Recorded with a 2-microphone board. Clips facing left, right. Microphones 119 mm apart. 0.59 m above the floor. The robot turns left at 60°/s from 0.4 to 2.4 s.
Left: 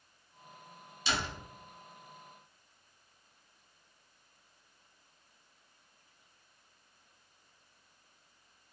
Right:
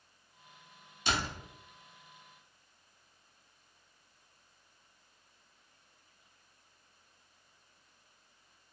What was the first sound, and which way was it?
A door slam, 50° right (ahead or behind).